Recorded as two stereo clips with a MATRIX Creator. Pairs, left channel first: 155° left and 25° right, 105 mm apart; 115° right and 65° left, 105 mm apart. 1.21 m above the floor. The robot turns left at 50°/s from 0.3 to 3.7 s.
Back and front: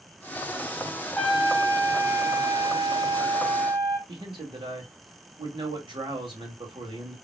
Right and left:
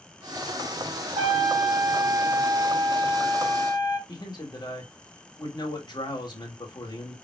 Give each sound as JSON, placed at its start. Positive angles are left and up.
{"t": 1.2, "sound": "a trumpet", "azimuth_deg": 70, "distance_m": 2.5}
{"t": 4.1, "sound": "a man speaking", "azimuth_deg": -65, "distance_m": 2.0}